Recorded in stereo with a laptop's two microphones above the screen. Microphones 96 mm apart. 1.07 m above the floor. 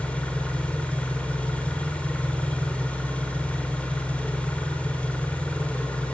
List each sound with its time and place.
0.0 s an engine running: 10° left (ahead or behind), 3 m